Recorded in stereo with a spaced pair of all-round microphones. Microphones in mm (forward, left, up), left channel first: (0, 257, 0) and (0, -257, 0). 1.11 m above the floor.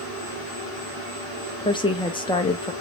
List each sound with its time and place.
1.6 s a woman speaking: 10° left (ahead or behind), 0.6 m